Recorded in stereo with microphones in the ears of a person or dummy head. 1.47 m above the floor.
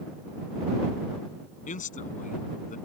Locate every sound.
1.7 s a man speaking: 40° left (ahead or behind)